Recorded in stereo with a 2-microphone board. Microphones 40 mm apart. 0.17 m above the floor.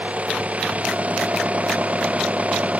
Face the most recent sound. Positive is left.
turn(degrees=-35)  # may be behind; listen again after turning